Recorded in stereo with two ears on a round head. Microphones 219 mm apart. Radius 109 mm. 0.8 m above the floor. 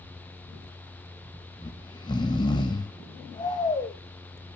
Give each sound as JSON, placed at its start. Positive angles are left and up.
{"t": 1.6, "sound": "snoring", "side_deg": 20, "distance_m": 0.6}